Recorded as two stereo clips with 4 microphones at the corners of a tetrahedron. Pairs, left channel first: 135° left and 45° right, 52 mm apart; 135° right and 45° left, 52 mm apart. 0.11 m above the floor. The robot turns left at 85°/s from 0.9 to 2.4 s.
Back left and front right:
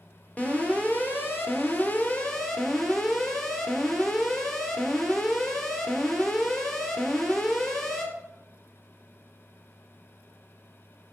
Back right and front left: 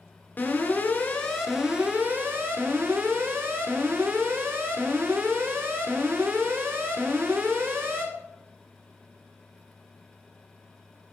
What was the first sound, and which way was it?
An alarm, 175° right.